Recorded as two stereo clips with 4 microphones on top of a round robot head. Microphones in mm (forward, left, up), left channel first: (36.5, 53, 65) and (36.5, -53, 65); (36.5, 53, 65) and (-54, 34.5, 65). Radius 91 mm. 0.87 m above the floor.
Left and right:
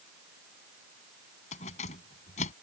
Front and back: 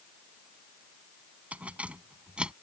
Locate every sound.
1.5 s keys jangling: 115° left; by 2.5 s 110° left